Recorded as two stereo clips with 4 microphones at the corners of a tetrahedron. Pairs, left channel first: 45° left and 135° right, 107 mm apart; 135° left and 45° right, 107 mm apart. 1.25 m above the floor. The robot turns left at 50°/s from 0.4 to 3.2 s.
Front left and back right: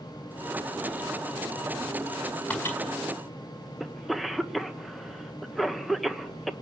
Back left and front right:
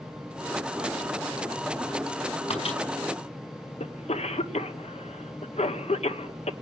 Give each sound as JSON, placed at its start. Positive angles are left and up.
{"t": 2.5, "sound": "a microwave", "azimuth_deg": 125, "distance_m": 5.0}
{"t": 3.8, "sound": "a cough", "azimuth_deg": 135, "distance_m": 1.0}